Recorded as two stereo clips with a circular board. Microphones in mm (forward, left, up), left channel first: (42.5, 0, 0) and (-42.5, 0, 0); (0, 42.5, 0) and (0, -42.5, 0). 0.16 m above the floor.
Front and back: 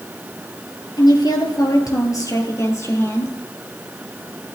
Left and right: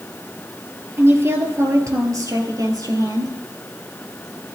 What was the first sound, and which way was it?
A woman speaking, 30° right.